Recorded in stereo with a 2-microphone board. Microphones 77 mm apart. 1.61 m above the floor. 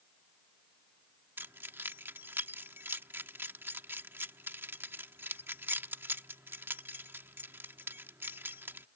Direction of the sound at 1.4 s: 30° right (ahead or behind).